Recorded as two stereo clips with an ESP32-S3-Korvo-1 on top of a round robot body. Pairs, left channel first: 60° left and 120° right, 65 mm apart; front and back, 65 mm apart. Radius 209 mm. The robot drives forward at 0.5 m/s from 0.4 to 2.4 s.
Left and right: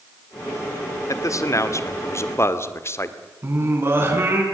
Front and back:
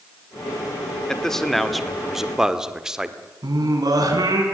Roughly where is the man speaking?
Left.